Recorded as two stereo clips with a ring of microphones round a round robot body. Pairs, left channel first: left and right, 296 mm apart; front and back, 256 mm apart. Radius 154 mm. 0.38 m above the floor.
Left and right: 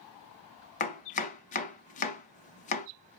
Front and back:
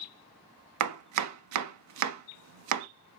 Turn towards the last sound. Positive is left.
turn(degrees=155)